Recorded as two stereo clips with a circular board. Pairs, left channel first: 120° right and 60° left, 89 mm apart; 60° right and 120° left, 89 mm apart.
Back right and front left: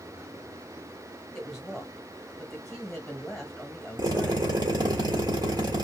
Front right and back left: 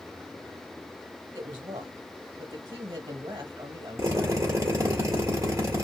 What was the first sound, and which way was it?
A woman speaking, 150° left.